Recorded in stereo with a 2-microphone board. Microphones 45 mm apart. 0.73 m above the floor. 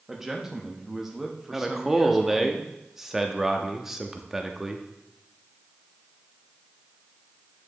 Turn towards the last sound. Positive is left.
turn(degrees=-10)  # may be behind; listen again after turning